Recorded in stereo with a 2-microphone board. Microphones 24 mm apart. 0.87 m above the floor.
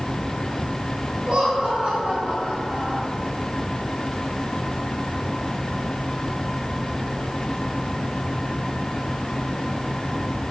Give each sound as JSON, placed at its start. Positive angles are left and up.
{"t": 1.3, "sound": "laughter", "side_deg": -40, "distance_m": 3.5}